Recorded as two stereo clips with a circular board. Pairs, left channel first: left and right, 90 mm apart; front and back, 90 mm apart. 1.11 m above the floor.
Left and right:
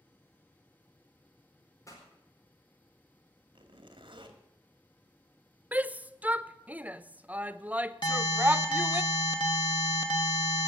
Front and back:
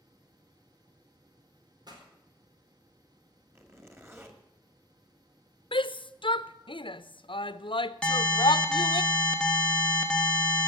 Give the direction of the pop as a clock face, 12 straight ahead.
7 o'clock.